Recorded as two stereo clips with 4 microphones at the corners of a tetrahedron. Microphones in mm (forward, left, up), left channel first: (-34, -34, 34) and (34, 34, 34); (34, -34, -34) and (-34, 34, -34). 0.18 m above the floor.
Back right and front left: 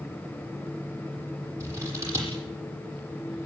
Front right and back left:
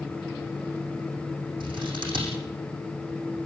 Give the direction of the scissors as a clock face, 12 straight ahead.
9 o'clock.